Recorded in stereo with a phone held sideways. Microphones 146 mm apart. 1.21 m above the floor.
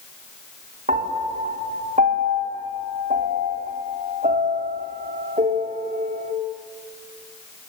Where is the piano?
60° right (ahead or behind), 3 m.